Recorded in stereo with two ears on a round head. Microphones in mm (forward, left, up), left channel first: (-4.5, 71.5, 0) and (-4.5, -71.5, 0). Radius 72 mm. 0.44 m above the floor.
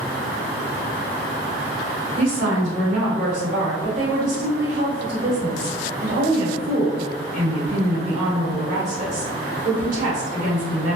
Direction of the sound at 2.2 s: 55° right (ahead or behind).